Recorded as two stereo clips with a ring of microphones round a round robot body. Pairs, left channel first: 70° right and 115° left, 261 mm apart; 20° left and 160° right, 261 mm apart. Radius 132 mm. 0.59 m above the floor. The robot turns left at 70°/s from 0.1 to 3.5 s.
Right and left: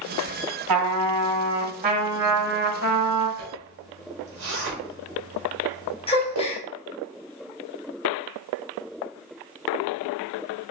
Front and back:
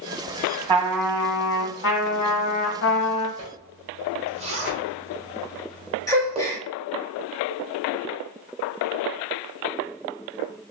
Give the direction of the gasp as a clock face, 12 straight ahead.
1 o'clock.